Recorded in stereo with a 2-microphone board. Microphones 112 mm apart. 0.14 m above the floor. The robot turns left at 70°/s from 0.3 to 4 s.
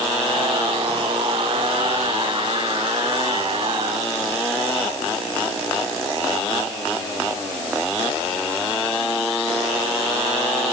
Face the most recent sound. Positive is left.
No sound to turn to.